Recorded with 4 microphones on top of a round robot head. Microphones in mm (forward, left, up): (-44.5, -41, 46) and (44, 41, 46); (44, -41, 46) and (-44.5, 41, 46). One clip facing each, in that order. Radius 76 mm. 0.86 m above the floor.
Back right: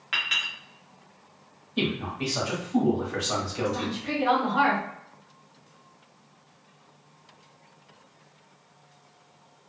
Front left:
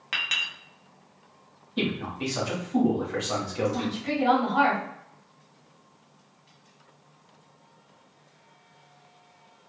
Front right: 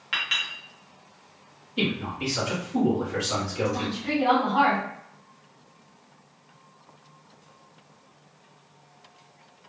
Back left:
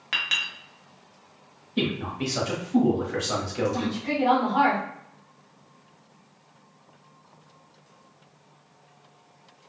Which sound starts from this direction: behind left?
A man speaking, at 1.8 s.